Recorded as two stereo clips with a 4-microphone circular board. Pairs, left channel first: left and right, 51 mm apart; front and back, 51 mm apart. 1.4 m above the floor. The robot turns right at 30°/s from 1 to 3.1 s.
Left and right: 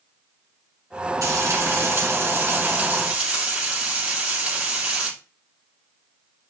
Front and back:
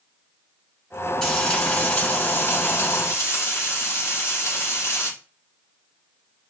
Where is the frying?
80° right, 3 m; by 5.1 s 25° right, 3 m.